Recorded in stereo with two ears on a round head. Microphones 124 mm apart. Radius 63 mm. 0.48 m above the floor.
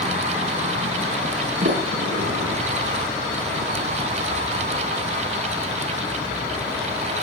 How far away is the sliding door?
About 6.5 m.